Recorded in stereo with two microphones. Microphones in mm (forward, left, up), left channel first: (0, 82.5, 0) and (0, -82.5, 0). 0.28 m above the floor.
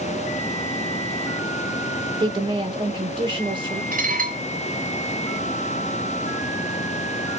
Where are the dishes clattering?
55° right (ahead or behind), 1.4 m.